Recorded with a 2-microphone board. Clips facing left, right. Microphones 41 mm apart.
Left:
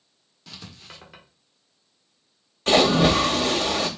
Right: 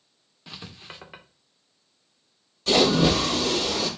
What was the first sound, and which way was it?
Writing, 25° right (ahead or behind).